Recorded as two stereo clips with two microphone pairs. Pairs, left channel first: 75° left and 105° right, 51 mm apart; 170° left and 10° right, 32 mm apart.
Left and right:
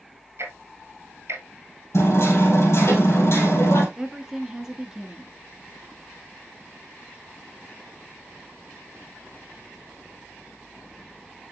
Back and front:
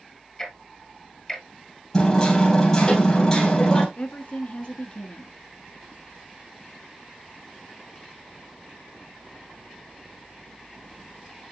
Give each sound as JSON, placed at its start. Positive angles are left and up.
{"t": 0.4, "sound": "ticking", "azimuth_deg": -115, "distance_m": 1.3}
{"t": 1.9, "sound": "hammering", "azimuth_deg": 105, "distance_m": 3.0}
{"t": 4.0, "sound": "a woman speaking", "azimuth_deg": -175, "distance_m": 1.3}